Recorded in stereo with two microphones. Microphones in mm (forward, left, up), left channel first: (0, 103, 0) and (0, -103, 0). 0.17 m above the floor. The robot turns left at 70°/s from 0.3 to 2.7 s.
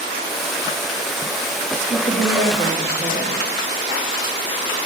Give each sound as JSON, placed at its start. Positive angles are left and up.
{"t": 1.9, "sound": "a woman speaking", "azimuth_deg": -60, "distance_m": 4.5}